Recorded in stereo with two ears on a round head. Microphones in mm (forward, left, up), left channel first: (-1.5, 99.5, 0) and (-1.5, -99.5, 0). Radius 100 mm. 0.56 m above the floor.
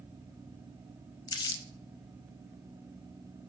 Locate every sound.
1.3 s crumpling: 20° left (ahead or behind), 0.5 m